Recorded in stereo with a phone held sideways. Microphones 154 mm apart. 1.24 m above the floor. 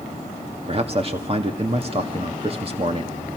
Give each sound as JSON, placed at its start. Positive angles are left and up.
{"t": 0.7, "sound": "a man speaking", "side_deg": -40, "distance_m": 1.9}